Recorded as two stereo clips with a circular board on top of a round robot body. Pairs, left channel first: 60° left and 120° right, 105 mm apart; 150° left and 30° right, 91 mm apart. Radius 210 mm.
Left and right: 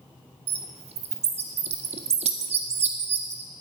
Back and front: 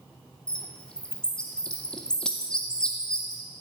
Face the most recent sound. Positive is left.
turn(degrees=-130)